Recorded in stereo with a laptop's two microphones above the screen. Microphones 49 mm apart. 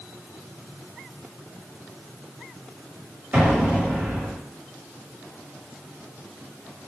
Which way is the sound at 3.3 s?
30° right (ahead or behind).